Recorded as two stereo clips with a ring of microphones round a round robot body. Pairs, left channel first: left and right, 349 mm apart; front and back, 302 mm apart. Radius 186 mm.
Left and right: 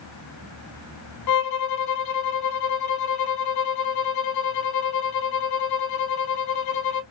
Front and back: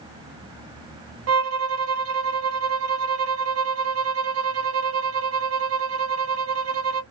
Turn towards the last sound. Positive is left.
turn(degrees=135)